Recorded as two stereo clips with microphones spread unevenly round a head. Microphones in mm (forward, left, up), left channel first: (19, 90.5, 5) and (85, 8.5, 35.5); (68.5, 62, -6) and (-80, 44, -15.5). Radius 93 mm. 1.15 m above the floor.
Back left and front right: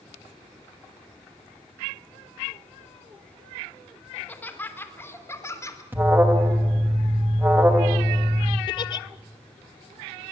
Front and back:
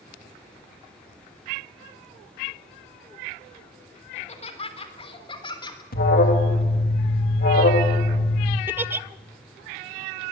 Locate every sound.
4.1 s laughter: 50° left, 3 m; by 5.8 s 65° left, 3.5 m
5.9 s an alarm: 25° left, 2.5 m
8.7 s a giggle: 125° left, 0.6 m